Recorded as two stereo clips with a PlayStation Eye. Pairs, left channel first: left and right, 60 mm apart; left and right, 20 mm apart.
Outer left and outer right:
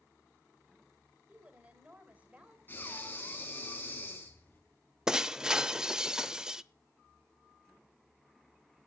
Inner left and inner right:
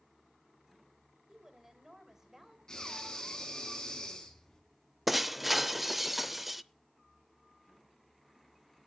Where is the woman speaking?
25° right (ahead or behind), 2.5 m.